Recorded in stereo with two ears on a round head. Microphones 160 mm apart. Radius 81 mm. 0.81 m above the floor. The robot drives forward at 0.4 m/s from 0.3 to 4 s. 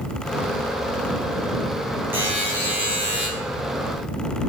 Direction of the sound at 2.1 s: 10° right (ahead or behind).